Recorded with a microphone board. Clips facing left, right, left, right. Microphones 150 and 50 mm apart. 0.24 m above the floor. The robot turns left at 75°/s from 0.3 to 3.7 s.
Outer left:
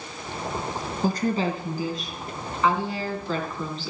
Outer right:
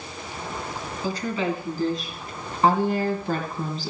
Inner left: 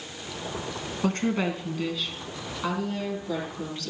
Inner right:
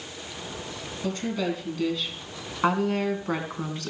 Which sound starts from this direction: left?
A woman speaking, at 1.0 s.